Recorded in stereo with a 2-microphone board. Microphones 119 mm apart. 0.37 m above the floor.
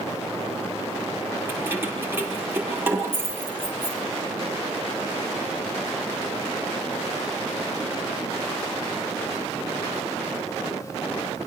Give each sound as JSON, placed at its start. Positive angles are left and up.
{"t": 1.5, "sound": "keys jangling", "side_deg": -20, "distance_m": 6.5}